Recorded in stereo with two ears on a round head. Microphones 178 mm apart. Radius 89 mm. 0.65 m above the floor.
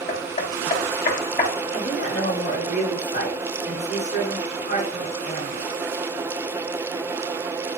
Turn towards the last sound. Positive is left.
turn(degrees=35)  # may be behind; listen again after turning